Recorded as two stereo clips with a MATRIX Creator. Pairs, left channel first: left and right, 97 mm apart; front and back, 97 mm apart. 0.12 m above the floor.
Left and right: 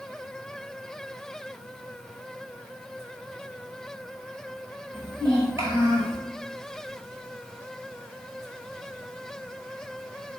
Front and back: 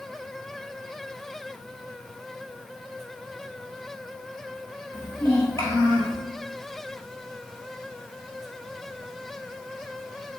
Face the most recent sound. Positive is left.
turn(degrees=-40)